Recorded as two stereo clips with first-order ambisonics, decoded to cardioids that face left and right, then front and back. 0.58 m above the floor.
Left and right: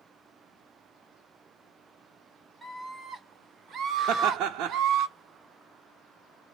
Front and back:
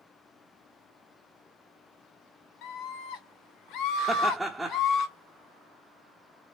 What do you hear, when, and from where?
2.6 s a scream: straight ahead, 1.6 m; by 5.1 s 50° right, 1.9 m
4.1 s laughter: 100° right, 0.8 m